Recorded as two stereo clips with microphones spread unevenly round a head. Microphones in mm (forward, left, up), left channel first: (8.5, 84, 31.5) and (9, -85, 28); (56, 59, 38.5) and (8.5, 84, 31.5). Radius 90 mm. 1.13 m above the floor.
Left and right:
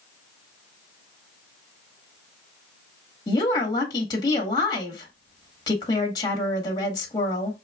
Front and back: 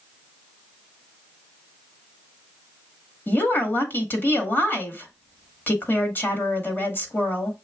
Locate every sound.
3.3 s a woman speaking: 25° left, 1.8 m